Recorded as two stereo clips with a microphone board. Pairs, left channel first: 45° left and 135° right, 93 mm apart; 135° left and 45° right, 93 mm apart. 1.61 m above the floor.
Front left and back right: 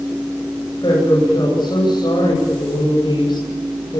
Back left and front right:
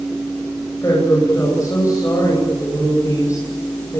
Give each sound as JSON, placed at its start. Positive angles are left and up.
{"t": 0.8, "sound": "a woman speaking", "azimuth_deg": 80, "distance_m": 9.5}